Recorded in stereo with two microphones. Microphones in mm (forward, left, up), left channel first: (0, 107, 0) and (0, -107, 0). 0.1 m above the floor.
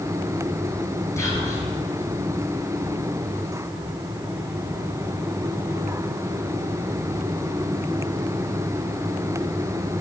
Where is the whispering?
15° left (ahead or behind), 2 m.